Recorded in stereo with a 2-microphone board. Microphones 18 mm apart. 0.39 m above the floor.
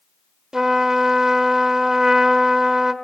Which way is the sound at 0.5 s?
35° right (ahead or behind).